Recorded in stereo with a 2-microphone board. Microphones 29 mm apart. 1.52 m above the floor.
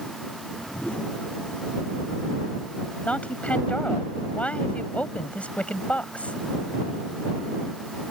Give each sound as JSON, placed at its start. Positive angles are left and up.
{"t": 0.3, "sound": "a whoosh", "side_deg": 55}
{"t": 3.1, "sound": "a woman speaking", "side_deg": 50}